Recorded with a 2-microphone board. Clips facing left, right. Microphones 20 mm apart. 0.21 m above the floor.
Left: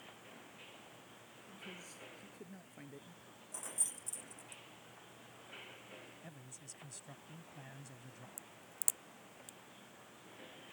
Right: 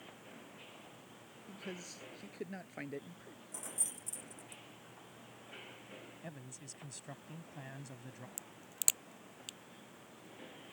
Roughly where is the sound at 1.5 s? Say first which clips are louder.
Right 5 dB; right.